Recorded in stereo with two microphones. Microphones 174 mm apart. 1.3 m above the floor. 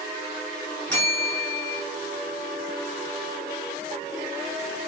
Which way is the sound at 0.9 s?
5° left (ahead or behind).